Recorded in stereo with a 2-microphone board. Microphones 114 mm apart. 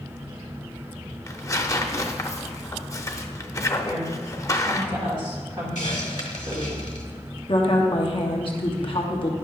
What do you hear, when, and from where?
1.3 s tearing paper: 25° left (ahead or behind), 0.5 m
3.8 s a woman speaking: 40° right (ahead or behind), 2 m
5.8 s a hiss: 75° left (ahead or behind), 1.4 m
7.5 s a woman speaking: 50° left (ahead or behind), 1.0 m